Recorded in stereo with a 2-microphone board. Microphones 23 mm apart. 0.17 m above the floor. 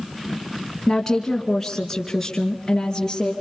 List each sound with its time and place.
0.9 s a woman speaking: 10° left (ahead or behind), 2 m; by 3.3 s 15° left (ahead or behind), 3.5 m